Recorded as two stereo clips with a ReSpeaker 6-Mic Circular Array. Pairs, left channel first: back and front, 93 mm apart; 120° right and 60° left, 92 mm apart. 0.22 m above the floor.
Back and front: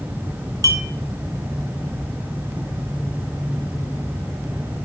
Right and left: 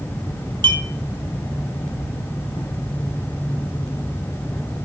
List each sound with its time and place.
0.6 s a clink: 45° left, 2.5 m